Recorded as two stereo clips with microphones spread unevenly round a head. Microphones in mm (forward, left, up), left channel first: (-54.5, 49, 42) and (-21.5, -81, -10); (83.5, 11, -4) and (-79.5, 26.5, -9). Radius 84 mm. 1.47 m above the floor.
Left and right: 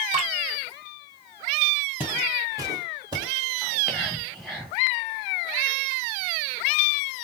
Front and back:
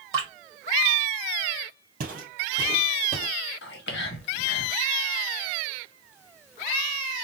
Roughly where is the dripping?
Behind right.